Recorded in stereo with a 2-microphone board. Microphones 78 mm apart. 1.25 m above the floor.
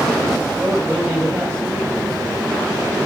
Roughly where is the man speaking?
Centre.